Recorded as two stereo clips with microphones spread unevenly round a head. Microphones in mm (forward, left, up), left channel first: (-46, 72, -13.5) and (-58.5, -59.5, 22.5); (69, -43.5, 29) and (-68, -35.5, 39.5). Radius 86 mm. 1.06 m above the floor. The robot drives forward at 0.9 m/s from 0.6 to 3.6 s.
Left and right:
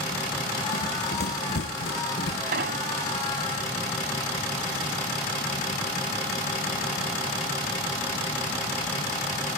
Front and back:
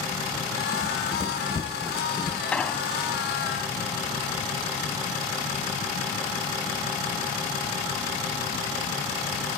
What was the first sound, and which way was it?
Running footsteps, 60° left.